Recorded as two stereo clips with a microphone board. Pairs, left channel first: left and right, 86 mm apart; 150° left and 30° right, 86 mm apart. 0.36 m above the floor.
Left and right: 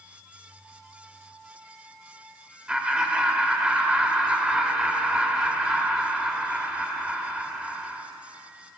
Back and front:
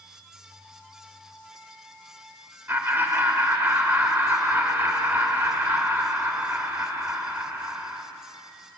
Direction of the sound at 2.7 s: 25° right.